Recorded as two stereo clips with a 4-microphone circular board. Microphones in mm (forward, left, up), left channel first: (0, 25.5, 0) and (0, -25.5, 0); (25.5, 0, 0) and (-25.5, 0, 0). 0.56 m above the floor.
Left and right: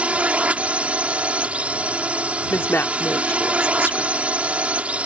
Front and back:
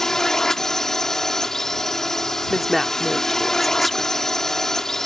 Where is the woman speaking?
90° left.